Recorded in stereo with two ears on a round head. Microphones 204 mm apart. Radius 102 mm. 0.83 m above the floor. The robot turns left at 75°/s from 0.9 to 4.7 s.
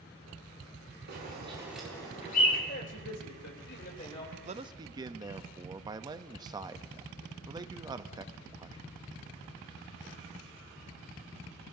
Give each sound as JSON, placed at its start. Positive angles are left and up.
{"t": 1.1, "sound": "a bird", "side_deg": -55, "distance_m": 6.5}
{"t": 2.7, "sound": "a man speaking", "azimuth_deg": 135, "distance_m": 3.0}
{"t": 4.5, "sound": "a man speaking", "side_deg": -35, "distance_m": 0.6}